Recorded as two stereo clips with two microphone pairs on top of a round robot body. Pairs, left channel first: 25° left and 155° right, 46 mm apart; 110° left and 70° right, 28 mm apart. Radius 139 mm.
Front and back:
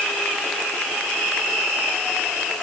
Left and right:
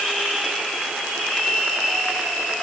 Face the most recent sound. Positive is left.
No sound to turn to.